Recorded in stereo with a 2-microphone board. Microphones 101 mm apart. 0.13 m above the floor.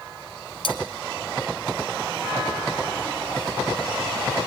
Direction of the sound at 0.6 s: 60° left (ahead or behind).